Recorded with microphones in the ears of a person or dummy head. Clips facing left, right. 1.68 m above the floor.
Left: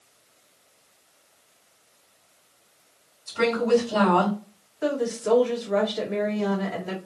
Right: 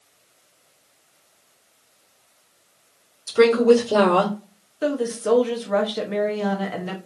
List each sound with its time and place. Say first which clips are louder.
3.3 s a woman speaking: right 7 dB; 75° right (ahead or behind), 1.6 m
4.8 s a woman speaking: right 2 dB; 40° right (ahead or behind), 0.8 m